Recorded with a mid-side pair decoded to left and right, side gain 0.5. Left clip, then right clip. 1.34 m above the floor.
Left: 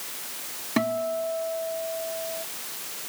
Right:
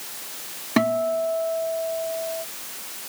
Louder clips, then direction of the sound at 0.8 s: Right 5 dB; 30° right.